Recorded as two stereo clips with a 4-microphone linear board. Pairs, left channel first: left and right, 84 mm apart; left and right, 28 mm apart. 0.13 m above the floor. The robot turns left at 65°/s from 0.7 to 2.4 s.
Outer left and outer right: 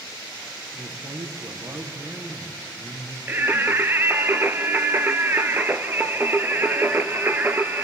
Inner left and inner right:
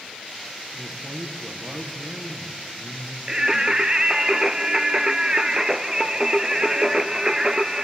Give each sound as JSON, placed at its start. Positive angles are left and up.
{"t": 0.7, "sound": "a man speaking", "azimuth_deg": -55, "distance_m": 4.5}
{"t": 3.3, "sound": "singing", "side_deg": -25, "distance_m": 1.1}